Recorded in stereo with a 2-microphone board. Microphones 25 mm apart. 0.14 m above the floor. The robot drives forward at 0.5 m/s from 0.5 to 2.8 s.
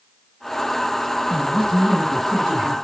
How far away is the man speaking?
About 2.0 m.